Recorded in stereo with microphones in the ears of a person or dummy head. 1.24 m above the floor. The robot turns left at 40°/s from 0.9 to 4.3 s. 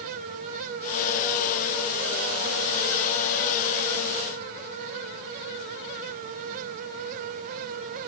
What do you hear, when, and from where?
Only background noise.